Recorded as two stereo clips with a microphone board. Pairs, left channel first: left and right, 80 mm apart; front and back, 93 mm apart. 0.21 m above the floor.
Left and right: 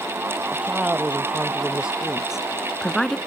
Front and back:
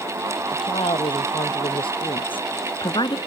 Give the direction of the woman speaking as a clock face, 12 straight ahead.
1 o'clock.